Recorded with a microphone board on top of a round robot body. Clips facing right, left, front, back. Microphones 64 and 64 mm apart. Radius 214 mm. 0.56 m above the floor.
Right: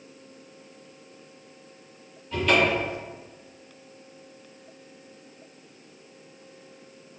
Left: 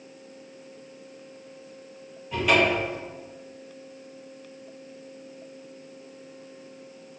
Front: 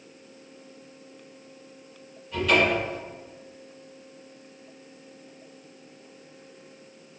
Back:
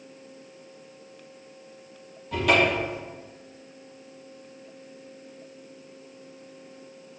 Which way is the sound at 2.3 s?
170° left.